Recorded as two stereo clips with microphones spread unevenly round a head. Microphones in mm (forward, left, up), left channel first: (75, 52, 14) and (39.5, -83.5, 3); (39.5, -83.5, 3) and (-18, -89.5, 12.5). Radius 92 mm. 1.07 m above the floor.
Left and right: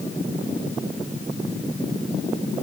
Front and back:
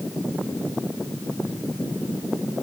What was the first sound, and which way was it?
Only background noise.